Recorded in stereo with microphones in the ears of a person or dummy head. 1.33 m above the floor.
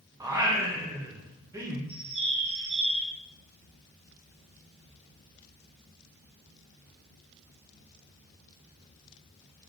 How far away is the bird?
About 0.8 m.